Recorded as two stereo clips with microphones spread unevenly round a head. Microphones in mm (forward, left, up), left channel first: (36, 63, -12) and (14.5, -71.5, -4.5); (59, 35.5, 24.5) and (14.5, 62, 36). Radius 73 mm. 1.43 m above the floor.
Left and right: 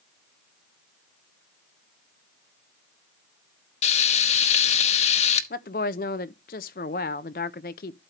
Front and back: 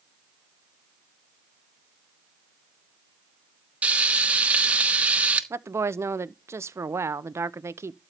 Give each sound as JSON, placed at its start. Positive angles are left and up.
{"t": 3.8, "sound": "frying", "azimuth_deg": 105, "distance_m": 0.9}
{"t": 5.5, "sound": "a woman speaking", "azimuth_deg": 115, "distance_m": 0.7}